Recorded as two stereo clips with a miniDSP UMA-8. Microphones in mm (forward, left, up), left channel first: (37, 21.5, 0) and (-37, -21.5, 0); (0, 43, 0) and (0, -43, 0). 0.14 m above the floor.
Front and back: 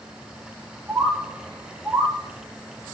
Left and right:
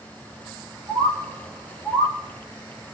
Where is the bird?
105° left, 1.5 m.